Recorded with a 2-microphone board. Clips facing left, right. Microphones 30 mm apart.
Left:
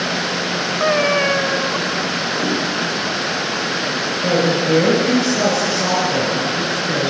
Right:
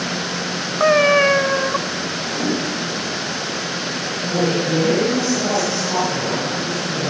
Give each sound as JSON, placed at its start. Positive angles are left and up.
{"t": 0.8, "sound": "a cat meowing", "side_deg": -10, "distance_m": 0.7}
{"t": 2.3, "sound": "a whoosh", "side_deg": 5, "distance_m": 4.0}
{"t": 4.2, "sound": "a woman speaking", "side_deg": 75, "distance_m": 5.0}